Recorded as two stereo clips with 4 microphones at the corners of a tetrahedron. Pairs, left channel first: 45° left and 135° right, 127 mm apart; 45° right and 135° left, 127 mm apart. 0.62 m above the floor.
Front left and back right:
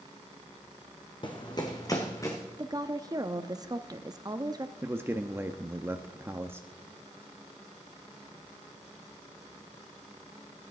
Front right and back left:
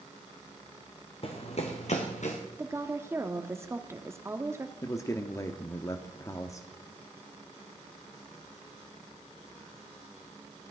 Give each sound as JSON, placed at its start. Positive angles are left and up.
{"t": 1.2, "sound": "running footsteps", "azimuth_deg": -5, "distance_m": 1.7}
{"t": 2.6, "sound": "a woman speaking", "azimuth_deg": -175, "distance_m": 0.7}
{"t": 4.8, "sound": "a man speaking", "azimuth_deg": -80, "distance_m": 0.7}